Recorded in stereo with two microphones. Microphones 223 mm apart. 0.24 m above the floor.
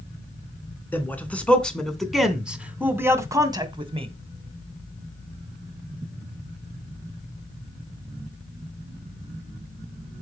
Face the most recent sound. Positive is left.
turn(degrees=-25)  # may be behind; listen again after turning